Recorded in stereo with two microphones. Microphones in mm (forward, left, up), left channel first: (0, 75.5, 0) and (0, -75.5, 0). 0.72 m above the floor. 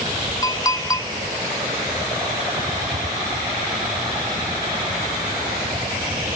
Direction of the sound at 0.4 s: 25° left (ahead or behind).